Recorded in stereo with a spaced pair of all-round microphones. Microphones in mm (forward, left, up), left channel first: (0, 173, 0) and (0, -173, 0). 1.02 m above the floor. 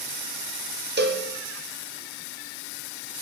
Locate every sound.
1.0 s a cowbell: 30° right (ahead or behind), 0.5 m